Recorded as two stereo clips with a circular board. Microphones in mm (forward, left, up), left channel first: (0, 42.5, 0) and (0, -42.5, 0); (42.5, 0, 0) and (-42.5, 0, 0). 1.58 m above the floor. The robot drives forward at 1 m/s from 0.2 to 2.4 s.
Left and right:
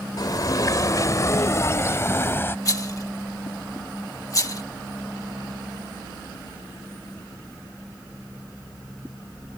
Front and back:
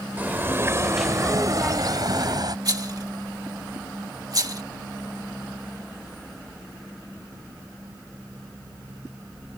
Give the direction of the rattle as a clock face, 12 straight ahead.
7 o'clock.